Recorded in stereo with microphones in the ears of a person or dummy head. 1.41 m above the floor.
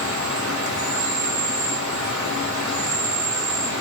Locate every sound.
0.0 s an insect: 65° right (ahead or behind), 7.5 m